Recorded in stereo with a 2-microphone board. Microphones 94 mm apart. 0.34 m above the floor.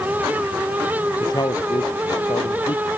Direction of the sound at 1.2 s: 50° left (ahead or behind).